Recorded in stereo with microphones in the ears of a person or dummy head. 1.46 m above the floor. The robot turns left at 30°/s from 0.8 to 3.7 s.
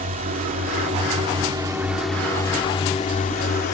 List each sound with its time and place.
0.0 s a drone: 145° right; by 3.8 s 130° left